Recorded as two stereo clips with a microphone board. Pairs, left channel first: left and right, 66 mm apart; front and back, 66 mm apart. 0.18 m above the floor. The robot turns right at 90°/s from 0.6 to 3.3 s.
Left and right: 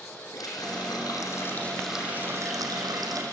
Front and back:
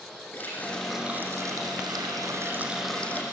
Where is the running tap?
65° left, 4.5 m; by 3.2 s 60° right, 4.5 m.